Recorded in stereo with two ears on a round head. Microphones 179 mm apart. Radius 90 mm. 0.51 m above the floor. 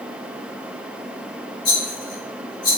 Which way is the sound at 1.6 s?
25° left (ahead or behind).